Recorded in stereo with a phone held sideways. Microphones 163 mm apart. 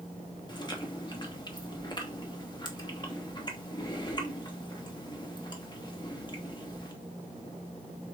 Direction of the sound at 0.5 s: 30° left (ahead or behind).